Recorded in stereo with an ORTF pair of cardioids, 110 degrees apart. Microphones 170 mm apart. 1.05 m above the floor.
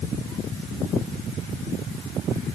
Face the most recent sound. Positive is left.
No sound to turn to.